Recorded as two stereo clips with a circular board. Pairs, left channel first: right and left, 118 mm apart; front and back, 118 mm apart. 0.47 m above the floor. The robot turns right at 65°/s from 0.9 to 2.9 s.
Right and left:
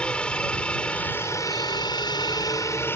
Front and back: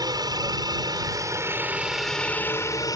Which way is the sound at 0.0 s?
165° right.